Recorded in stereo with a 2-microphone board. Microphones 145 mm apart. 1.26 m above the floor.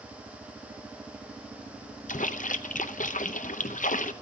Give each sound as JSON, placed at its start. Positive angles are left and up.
{"t": 2.1, "sound": "a splash", "side_deg": 65, "distance_m": 0.6}